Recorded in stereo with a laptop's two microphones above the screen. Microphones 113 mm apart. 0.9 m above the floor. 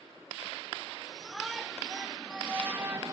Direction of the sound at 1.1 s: Centre (ahead or behind).